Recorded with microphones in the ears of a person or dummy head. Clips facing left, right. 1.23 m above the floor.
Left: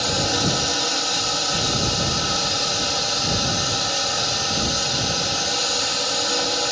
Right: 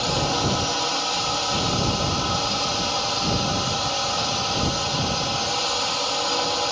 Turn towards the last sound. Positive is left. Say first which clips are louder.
# even
turn(degrees=20)  # may be behind; listen again after turning